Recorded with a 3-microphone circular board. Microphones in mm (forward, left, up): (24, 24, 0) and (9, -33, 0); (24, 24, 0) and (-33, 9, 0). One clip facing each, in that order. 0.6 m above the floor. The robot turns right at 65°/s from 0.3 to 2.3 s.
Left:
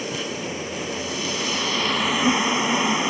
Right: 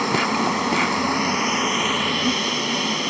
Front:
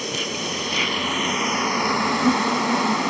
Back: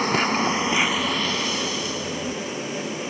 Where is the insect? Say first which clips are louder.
Right 9 dB, back 7 dB; 125° right; by 3.1 s 5° left.